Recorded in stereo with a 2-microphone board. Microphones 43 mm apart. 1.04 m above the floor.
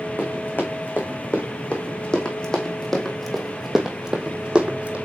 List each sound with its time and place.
0.2 s running footsteps: 45° left (ahead or behind), 3 m; by 5.0 s 30° right (ahead or behind), 2 m